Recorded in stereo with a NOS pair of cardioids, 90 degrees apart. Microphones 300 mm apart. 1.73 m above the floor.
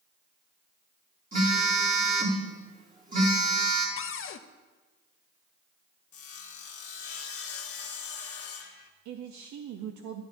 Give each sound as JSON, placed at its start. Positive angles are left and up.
{"t": 1.3, "sound": "a phone buzzing", "azimuth_deg": -30, "distance_m": 3.0}
{"t": 4.0, "sound": "a cupboard door", "azimuth_deg": 45, "distance_m": 0.6}
{"t": 6.1, "sound": "sawing", "azimuth_deg": 50, "distance_m": 1.2}
{"t": 9.1, "sound": "a man speaking", "azimuth_deg": -70, "distance_m": 0.7}